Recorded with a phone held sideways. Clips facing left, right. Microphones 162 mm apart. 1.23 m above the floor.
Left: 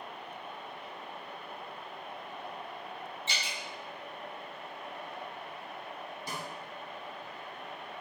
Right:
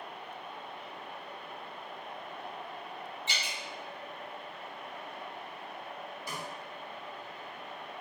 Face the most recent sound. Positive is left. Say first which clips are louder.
# left 1 dB
turn(degrees=25)  # may be behind; listen again after turning